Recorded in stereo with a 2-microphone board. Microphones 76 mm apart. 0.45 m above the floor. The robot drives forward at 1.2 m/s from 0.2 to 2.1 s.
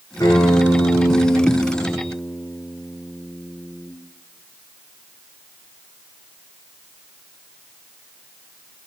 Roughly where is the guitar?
Left.